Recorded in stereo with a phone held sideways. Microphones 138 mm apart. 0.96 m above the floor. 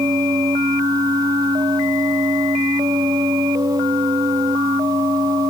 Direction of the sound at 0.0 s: 25° right (ahead or behind).